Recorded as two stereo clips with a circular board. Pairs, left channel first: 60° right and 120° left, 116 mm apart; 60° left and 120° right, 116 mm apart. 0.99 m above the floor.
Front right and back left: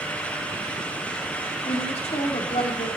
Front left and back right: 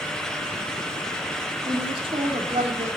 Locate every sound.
1.6 s a woman speaking: 80° right, 3 m